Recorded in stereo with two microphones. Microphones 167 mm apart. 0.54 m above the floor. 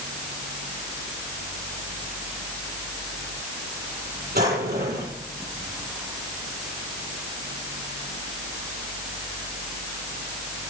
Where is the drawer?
70° right (ahead or behind), 7 m.